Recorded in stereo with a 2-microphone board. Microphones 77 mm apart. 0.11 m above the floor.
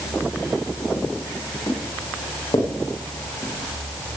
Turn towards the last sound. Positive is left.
turn(degrees=70)  # may be behind; listen again after turning